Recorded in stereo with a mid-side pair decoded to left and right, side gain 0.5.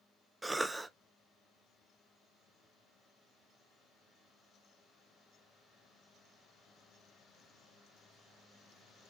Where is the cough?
15° right, 0.5 m.